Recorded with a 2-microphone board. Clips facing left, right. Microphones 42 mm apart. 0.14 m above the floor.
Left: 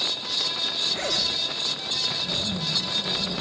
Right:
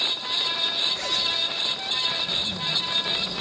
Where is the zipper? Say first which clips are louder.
Right 1 dB; 35° left (ahead or behind), 4 m.